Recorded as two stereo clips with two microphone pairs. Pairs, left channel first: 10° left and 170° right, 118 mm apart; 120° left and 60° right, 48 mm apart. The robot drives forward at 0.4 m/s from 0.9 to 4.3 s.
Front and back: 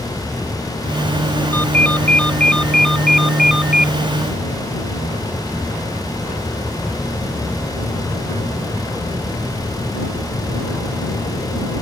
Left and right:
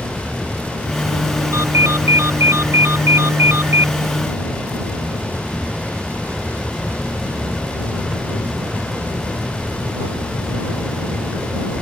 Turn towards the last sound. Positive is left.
turn(degrees=-90)